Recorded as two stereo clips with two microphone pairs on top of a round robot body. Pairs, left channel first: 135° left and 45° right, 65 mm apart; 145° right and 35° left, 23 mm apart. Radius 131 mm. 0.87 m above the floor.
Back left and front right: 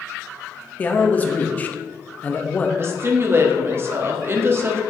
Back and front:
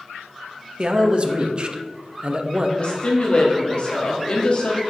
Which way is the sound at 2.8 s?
95° right.